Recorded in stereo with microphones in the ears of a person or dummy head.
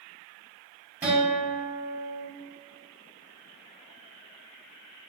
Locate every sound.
1.0 s a guitar: 10° right (ahead or behind), 1.4 m